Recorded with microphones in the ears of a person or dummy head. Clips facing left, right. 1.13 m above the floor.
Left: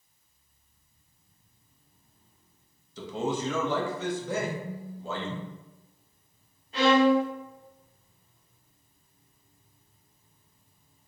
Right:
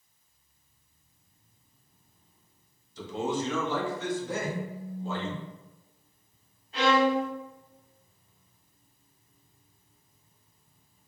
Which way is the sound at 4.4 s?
55° left (ahead or behind).